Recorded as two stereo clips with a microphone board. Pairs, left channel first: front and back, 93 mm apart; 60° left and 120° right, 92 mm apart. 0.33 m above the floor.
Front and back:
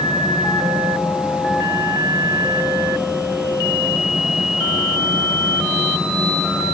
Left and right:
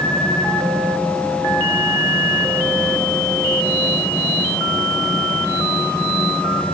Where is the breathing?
I don't hear breathing.